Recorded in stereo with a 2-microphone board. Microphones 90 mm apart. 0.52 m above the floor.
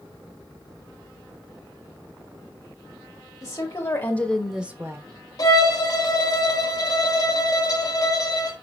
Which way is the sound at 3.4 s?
40° left (ahead or behind).